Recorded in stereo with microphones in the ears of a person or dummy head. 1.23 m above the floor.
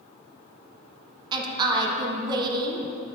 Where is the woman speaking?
20° right (ahead or behind), 0.7 m.